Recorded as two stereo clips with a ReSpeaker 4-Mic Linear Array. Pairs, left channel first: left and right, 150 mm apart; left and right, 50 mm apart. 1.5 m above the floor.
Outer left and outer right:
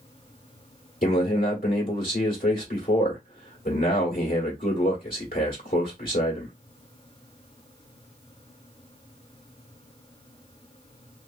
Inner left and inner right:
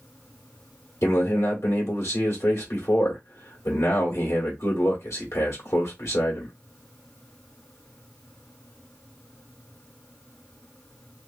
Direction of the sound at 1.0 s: 75° left (ahead or behind).